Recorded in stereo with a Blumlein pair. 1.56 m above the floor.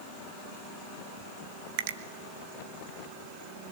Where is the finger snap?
50° right, 1.5 m.